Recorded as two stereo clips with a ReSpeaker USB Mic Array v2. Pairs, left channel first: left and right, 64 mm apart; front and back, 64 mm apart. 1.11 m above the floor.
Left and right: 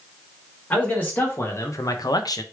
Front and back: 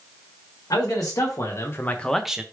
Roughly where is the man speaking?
Ahead left.